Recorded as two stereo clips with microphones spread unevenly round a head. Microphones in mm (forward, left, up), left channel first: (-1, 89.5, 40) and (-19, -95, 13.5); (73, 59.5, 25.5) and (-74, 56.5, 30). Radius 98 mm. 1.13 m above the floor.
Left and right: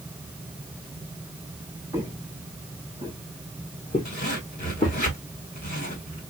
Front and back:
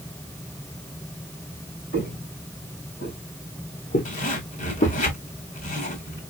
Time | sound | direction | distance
1.9 | footsteps | 15° left | 4.5 m
4.0 | a zipper | 35° left | 2.5 m